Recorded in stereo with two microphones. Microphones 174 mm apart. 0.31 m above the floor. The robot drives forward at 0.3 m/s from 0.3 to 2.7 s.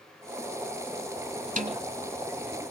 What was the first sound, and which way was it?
A snare drum, 45° right (ahead or behind).